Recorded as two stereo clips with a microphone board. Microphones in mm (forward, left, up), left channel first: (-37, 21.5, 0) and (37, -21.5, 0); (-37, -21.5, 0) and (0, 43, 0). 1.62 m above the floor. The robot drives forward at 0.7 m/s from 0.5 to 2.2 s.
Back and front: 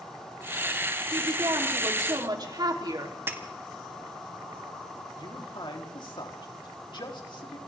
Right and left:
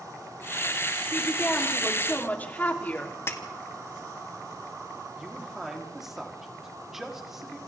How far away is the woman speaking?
About 4 m.